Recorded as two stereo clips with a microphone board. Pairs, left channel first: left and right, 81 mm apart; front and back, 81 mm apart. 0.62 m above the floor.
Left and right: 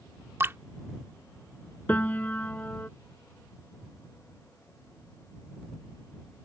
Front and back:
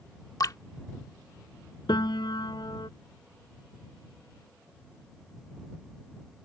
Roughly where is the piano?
Ahead.